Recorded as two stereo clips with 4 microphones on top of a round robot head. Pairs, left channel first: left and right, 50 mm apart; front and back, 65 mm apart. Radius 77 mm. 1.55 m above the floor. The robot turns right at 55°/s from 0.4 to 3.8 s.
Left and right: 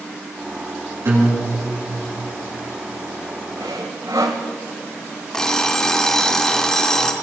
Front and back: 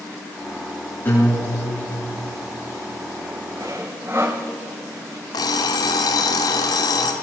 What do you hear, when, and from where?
1.1 s a guitar: 60° right, 9.5 m; by 2.2 s straight ahead, 9.5 m
3.6 s sawing: 130° right, 1.6 m; by 4.4 s 115° right, 1.6 m
5.3 s an alarm clock: 15° left, 1.9 m